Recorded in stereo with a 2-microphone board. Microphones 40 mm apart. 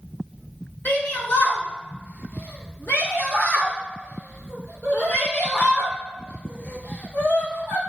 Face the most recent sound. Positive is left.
turn(degrees=80)